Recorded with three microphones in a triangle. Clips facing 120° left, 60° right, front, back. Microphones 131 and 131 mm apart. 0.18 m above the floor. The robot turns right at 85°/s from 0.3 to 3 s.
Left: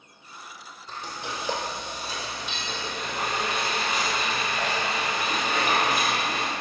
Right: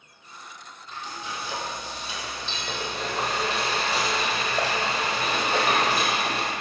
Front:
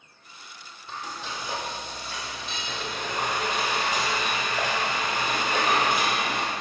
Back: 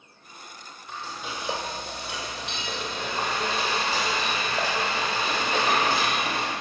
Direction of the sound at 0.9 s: 60° left.